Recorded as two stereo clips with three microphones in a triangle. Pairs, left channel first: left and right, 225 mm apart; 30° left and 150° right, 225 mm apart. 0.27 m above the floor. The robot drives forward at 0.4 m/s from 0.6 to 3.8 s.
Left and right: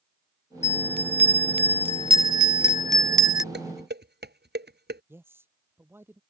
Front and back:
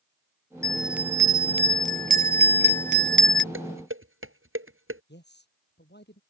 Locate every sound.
0.6 s a bell: 55° right; by 3.4 s 165° right
3.5 s dishes clattering: 130° right
5.1 s a man speaking: 10° right